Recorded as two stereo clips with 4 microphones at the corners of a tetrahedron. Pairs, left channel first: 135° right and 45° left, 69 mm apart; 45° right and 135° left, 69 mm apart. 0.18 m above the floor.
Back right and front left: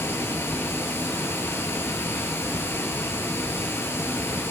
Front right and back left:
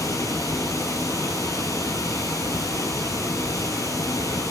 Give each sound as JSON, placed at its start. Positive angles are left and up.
{"t": 0.0, "sound": "running water", "azimuth_deg": -85, "distance_m": 2.0}